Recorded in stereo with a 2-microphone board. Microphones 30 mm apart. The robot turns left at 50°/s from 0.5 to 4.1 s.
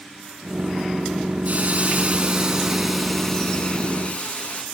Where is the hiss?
105° right, 1.9 m; by 4.6 s 120° left, 1.9 m.